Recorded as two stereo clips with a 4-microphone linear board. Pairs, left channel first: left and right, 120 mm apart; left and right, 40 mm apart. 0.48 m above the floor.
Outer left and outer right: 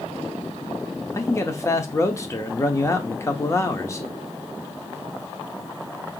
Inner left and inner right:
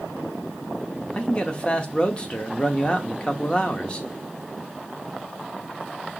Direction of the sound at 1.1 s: 25° left (ahead or behind).